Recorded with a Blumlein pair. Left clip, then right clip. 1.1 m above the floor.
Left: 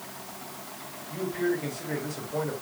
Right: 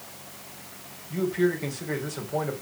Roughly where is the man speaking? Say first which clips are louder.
Right 4 dB; ahead.